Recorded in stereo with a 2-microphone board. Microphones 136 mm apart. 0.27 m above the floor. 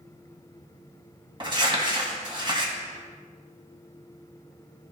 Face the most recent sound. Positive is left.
turn(degrees=-35)  # may be behind; listen again after turning